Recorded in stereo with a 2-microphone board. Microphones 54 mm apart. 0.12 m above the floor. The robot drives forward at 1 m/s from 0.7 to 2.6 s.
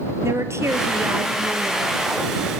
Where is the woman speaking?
60° right (ahead or behind), 2 m; by 2.1 s 40° right (ahead or behind), 3 m.